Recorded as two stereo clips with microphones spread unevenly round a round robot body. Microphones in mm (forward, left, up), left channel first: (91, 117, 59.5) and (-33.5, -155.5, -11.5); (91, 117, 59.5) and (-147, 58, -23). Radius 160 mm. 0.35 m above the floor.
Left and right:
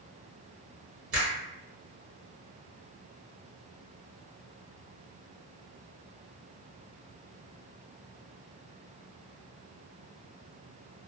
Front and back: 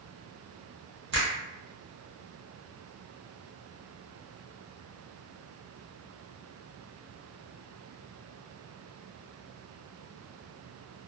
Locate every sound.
1.1 s a finger snap: 155° right, 1.5 m